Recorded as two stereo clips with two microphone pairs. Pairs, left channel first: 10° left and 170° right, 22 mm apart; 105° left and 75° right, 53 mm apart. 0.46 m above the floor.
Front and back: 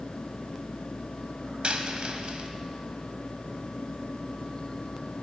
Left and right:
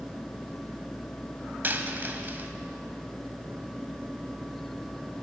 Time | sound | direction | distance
1.6 | a dropped coin | 125° right | 0.9 m